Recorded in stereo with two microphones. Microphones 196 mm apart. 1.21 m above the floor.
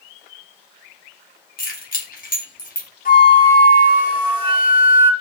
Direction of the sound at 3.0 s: 50° left (ahead or behind).